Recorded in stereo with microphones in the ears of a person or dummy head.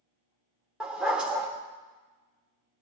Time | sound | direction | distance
0.8 | a dog barking | centre (ahead or behind) | 1.4 m